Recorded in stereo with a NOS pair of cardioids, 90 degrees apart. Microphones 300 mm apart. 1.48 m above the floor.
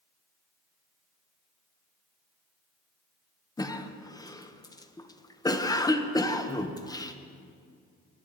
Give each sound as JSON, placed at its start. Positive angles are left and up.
{"t": 3.6, "sound": "a cough", "azimuth_deg": 10, "distance_m": 1.1}